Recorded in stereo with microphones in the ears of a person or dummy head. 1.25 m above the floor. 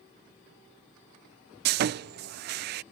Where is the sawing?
50° right (ahead or behind).